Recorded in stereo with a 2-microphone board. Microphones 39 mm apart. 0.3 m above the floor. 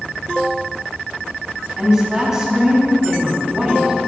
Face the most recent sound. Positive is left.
turn(degrees=-15)  # may be behind; listen again after turning